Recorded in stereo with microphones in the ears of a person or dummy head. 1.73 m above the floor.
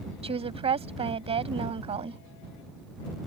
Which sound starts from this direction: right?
A woman speaking, at 0.2 s.